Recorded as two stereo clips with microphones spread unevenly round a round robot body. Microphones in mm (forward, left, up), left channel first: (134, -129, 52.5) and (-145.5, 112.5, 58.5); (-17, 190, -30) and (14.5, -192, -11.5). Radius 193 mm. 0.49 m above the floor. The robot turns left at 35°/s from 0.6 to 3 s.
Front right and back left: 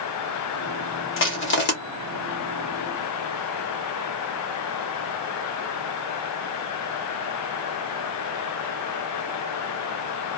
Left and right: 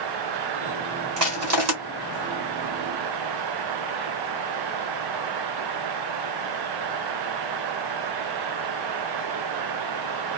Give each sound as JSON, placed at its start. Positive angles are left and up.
{"t": 1.2, "sound": "crushing", "azimuth_deg": -60, "distance_m": 1.1}